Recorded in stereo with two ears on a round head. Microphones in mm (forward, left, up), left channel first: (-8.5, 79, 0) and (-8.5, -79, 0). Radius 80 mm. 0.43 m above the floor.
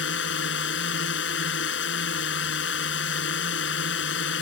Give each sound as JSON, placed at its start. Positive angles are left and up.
{"t": 0.0, "sound": "a drone", "side_deg": 75}